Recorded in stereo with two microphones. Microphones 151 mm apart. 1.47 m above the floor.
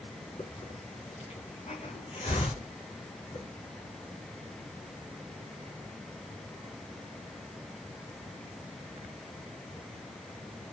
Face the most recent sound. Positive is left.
turn(degrees=45)  # may be behind; listen again after turning